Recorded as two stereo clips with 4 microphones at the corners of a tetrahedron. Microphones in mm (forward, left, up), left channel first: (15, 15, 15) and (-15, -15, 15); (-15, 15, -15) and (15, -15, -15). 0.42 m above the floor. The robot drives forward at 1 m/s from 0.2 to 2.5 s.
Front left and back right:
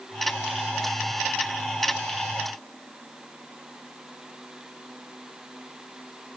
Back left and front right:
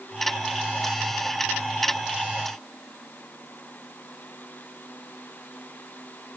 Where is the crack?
No crack in this recording.